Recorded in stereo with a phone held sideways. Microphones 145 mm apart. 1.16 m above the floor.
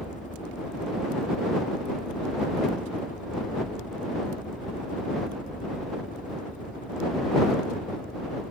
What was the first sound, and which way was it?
A helicopter, 60° left (ahead or behind).